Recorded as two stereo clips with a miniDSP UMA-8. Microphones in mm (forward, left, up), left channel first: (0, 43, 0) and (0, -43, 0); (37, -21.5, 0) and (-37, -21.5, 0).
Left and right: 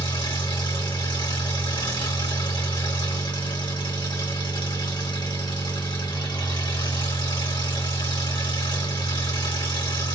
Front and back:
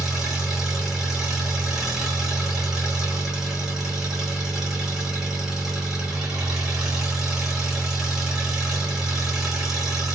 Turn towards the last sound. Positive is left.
turn(degrees=100)